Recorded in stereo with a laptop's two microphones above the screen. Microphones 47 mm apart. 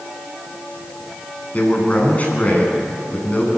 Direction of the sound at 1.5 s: 30° left (ahead or behind).